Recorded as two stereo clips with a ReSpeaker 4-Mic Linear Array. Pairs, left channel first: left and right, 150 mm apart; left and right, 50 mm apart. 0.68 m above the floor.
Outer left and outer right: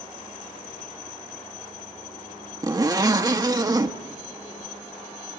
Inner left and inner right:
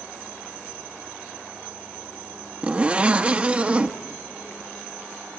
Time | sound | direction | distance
2.6 | a zipper | 25° right (ahead or behind) | 0.9 m